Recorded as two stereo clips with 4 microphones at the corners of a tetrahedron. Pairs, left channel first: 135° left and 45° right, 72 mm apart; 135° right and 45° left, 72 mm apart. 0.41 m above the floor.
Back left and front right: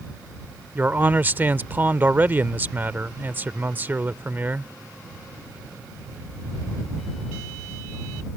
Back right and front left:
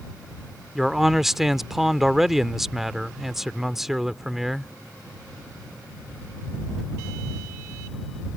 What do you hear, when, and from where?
0.8 s a man speaking: 35° right